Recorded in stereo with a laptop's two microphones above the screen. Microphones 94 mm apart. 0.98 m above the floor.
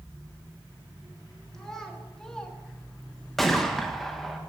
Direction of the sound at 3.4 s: 5° left (ahead or behind).